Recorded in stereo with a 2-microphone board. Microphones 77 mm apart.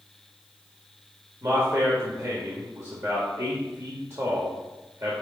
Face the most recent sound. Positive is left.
turn(degrees=-40)  # may be behind; listen again after turning